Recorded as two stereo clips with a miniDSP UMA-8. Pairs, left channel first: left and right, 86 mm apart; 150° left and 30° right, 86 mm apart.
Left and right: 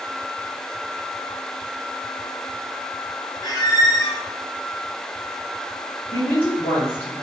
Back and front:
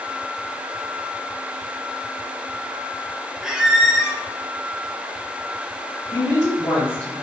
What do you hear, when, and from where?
3.4 s a squeak: 50° left, 0.5 m
6.1 s a woman speaking: 100° left, 1.7 m